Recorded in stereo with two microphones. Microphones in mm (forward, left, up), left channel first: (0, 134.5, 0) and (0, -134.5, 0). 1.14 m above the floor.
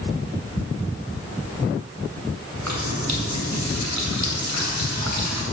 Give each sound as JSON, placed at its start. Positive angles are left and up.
{"t": 2.6, "sound": "a running tap", "side_deg": -85, "distance_m": 3.5}